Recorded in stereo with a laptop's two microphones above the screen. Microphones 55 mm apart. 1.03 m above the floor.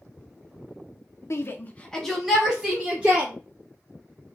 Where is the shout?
50° left (ahead or behind), 0.5 m; by 3.3 s 25° right (ahead or behind), 1.4 m.